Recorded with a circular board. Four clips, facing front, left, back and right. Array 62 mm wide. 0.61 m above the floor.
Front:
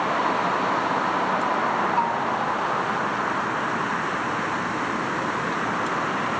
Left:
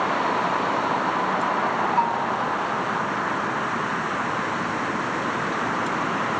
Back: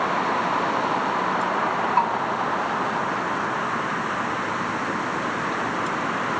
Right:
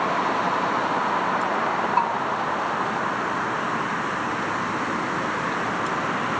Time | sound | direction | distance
2.0 | a bell | 135° right | 1.2 m